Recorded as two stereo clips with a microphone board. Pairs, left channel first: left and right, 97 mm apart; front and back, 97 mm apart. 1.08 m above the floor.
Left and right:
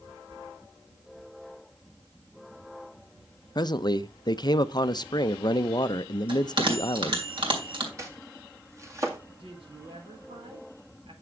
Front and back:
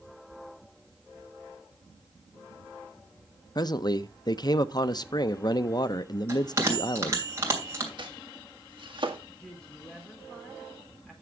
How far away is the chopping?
About 2 m.